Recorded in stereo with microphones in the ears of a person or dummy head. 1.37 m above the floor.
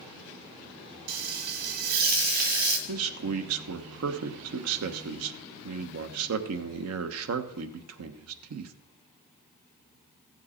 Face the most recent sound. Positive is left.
turn(degrees=-90)